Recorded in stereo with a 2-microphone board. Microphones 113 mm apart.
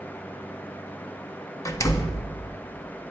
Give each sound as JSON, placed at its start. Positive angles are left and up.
{"t": 1.6, "sound": "a door slam", "side_deg": 30, "distance_m": 1.4}